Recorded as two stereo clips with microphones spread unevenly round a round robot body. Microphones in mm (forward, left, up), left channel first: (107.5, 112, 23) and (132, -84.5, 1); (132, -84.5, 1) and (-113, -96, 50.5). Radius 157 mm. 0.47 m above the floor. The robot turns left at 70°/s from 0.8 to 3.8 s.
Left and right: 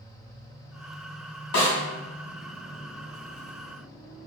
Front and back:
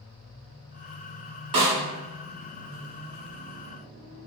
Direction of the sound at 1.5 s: 145° left.